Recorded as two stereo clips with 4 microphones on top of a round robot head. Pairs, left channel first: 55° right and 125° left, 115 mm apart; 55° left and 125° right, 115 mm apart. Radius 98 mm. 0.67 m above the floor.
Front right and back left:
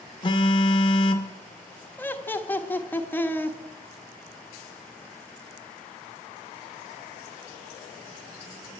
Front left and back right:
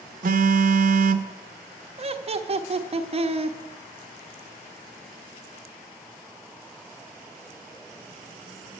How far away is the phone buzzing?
About 0.5 m.